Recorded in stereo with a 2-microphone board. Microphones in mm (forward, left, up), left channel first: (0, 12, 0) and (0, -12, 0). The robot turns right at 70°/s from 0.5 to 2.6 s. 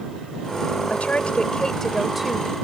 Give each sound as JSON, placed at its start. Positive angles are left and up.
{"t": 0.9, "sound": "a woman speaking", "azimuth_deg": 100}